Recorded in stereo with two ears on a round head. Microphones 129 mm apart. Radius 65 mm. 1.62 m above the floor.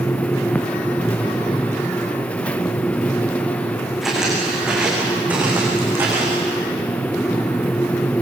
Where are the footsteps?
5° right (ahead or behind), 7.5 m; by 6.5 s 20° right (ahead or behind), 7.5 m.